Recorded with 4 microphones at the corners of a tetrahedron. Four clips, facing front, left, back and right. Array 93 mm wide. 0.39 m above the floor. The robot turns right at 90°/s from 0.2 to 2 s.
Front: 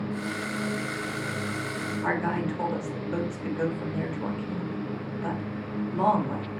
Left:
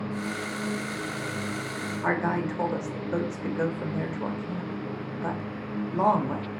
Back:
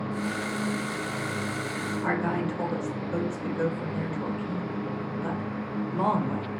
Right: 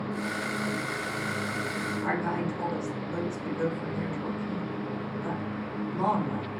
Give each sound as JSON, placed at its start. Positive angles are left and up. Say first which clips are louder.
{"t": 2.0, "sound": "a woman speaking", "louder": "left 5 dB, even", "azimuth_deg": 95, "distance_m": 1.0}